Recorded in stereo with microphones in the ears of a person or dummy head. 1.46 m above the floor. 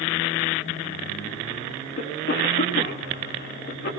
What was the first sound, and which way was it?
A cough, 60° left (ahead or behind).